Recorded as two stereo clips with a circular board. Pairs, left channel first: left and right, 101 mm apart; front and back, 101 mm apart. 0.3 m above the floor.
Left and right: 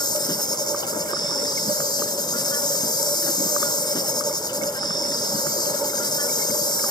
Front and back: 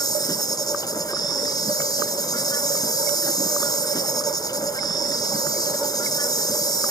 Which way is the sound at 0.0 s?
50° left.